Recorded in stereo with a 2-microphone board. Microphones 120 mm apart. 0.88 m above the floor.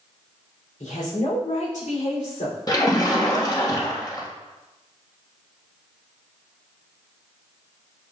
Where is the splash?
30° left (ahead or behind), 1.3 m.